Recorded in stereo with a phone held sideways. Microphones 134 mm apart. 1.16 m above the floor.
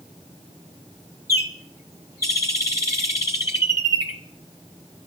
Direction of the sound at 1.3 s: 20° right (ahead or behind).